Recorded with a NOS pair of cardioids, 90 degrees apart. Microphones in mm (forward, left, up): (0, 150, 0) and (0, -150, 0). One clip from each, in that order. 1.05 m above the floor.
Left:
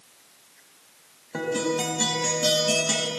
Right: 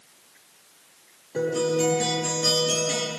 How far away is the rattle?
No rattle in this recording.